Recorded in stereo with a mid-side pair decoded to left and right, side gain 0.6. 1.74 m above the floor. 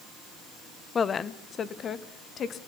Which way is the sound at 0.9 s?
30° left.